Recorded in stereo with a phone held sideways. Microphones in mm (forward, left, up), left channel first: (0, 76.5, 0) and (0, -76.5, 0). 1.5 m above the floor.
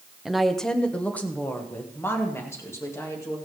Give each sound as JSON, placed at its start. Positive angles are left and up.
{"t": 0.2, "sound": "a woman speaking", "side_deg": -5, "distance_m": 0.7}